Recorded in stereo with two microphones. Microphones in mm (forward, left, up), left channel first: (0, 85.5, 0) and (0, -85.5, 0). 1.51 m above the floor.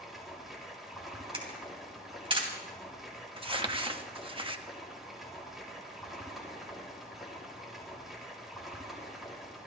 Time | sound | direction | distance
0.0 | running water | centre (ahead or behind) | 3 m
1.3 | a camera shutter | 30° right (ahead or behind) | 3 m
3.4 | crumpling | 30° right (ahead or behind) | 1.0 m